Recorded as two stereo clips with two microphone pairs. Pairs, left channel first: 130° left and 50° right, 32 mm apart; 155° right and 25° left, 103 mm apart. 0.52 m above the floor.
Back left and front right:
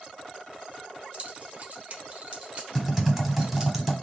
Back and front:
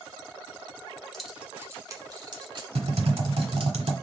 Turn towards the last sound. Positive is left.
turn(degrees=25)